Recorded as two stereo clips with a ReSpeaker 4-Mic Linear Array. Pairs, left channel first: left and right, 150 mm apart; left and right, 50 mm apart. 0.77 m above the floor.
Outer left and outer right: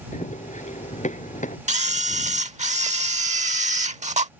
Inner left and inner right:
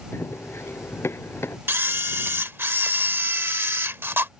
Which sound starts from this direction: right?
A camera shutter, at 1.7 s.